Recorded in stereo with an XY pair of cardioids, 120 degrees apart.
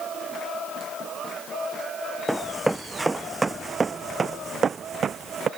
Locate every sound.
2.3 s running footsteps: 5° right; by 5.5 s 45° right